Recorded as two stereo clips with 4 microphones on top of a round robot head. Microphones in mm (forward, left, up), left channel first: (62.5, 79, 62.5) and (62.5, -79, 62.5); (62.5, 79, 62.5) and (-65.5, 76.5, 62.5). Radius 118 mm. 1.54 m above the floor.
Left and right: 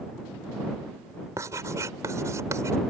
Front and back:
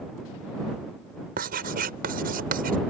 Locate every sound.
1.4 s writing: 165° right